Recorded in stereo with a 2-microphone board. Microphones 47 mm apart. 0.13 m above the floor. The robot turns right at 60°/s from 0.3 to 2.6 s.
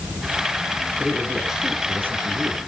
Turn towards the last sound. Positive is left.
turn(degrees=-105)